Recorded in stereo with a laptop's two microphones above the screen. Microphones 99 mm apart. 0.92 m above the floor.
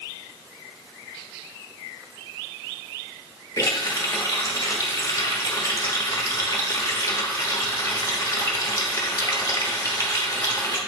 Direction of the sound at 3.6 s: 35° left (ahead or behind).